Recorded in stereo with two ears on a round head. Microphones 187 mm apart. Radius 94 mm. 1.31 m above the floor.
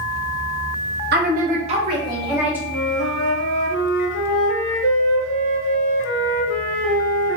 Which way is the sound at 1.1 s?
50° right (ahead or behind).